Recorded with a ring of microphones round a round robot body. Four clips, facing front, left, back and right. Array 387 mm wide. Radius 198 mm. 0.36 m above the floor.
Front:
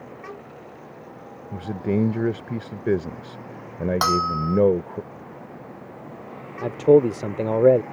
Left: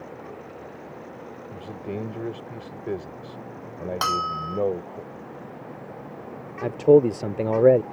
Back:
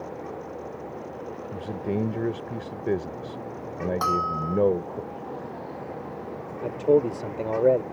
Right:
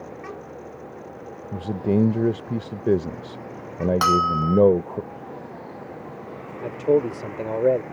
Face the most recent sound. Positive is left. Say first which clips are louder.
# left 4 dB, front 5 dB
turn(degrees=40)